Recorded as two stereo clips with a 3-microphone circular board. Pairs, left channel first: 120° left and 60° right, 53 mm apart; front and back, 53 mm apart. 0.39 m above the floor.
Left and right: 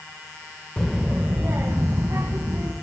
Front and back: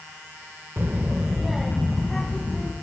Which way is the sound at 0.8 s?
170° right.